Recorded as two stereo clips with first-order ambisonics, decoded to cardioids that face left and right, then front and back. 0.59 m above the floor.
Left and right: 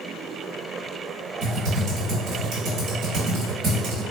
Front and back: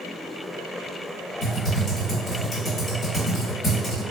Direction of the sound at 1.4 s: 65° right.